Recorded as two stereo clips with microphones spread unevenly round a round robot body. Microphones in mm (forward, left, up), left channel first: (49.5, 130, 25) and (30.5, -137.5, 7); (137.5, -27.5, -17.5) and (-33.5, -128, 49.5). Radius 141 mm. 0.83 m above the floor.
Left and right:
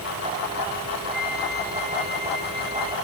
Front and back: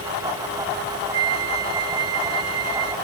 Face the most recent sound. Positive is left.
turn(degrees=180)